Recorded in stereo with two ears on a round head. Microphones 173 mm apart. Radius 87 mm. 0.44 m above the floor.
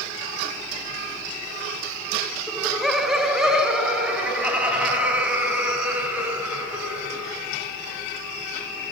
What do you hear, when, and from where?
2.5 s laughter: centre (ahead or behind), 1.2 m; by 7.5 s 10° right (ahead or behind), 5 m